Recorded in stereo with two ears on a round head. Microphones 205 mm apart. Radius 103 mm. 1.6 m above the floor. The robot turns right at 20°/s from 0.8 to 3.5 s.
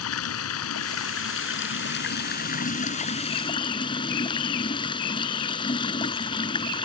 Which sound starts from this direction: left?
Running water, at 0.0 s.